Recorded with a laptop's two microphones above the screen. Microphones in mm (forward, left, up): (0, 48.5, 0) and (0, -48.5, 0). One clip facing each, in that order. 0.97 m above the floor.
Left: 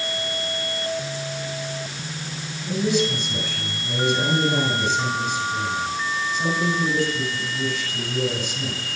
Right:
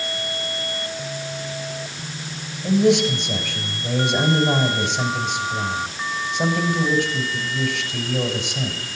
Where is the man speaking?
80° right, 5.5 m.